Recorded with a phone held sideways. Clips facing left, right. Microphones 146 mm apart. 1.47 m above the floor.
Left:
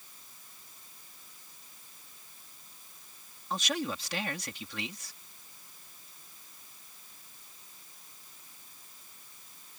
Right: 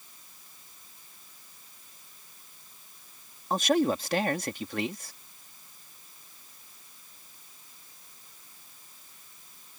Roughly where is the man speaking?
Right.